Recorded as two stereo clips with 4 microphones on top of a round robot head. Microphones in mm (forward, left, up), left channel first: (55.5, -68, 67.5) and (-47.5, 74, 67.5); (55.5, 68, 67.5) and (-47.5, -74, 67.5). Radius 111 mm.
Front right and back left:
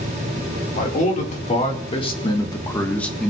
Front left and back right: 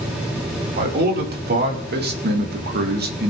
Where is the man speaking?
95° right, 2.5 m; by 3.3 s 145° right, 1.5 m.